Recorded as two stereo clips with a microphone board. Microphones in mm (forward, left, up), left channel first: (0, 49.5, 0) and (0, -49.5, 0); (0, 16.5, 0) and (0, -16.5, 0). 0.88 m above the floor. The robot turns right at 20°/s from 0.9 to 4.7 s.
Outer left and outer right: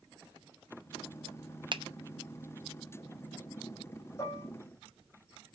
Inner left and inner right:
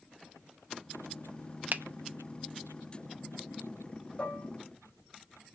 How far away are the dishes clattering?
About 2.5 m.